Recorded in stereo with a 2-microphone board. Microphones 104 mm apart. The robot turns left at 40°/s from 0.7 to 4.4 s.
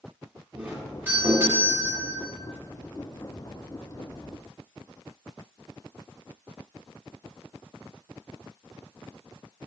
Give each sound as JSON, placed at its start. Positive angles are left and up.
{"t": 0.6, "sound": "a doorbell", "side_deg": -15, "distance_m": 1.6}